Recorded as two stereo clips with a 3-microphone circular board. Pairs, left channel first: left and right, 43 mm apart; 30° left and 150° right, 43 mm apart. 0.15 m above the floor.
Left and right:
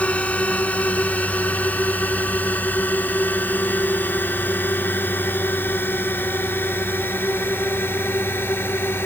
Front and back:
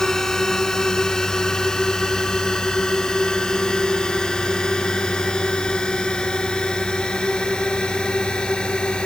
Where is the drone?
95° left.